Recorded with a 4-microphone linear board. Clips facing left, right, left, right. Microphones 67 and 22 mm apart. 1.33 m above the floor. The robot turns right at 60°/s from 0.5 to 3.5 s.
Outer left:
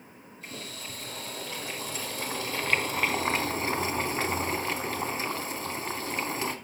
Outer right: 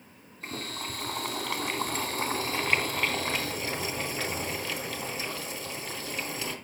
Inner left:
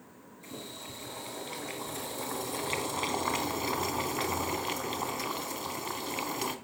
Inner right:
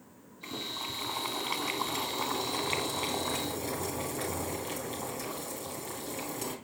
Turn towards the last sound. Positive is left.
turn(degrees=35)